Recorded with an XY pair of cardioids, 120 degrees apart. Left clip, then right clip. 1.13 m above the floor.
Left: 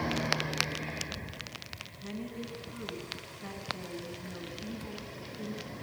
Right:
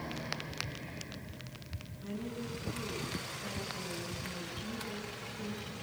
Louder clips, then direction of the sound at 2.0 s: Right 2 dB; 35° left.